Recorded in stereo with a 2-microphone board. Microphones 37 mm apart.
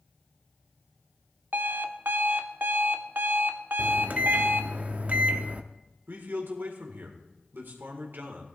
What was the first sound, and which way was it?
An alarm clock, 70° right (ahead or behind).